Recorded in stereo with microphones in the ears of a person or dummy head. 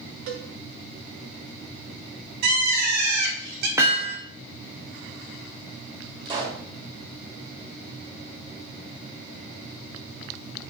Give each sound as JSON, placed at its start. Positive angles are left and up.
{"t": 0.3, "sound": "a cowbell", "side_deg": -45, "distance_m": 0.8}
{"t": 2.4, "sound": "a bird", "side_deg": -55, "distance_m": 1.2}
{"t": 3.8, "sound": "hammering", "side_deg": -15, "distance_m": 0.9}
{"t": 6.2, "sound": "a pop", "side_deg": -30, "distance_m": 2.0}